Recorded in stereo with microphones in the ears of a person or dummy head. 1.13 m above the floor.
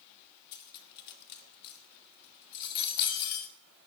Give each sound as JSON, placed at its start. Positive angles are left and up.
{"t": 0.5, "sound": "cutlery clinking", "side_deg": 60, "distance_m": 1.2}